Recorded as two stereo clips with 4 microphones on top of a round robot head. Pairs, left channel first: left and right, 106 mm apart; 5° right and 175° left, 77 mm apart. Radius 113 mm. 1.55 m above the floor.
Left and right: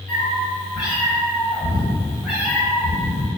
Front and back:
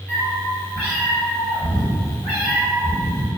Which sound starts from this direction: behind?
A cat meowing, at 0.1 s.